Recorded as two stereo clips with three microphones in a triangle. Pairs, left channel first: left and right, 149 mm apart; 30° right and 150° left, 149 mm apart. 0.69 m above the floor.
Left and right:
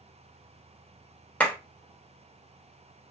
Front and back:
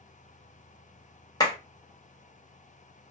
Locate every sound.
1.4 s a clap: 15° left, 1.0 m